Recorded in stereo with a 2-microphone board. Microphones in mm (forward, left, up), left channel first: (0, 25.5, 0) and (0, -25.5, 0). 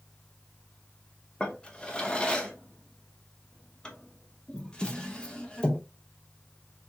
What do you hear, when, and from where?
1.4 s a drawer: 20° left (ahead or behind), 0.7 m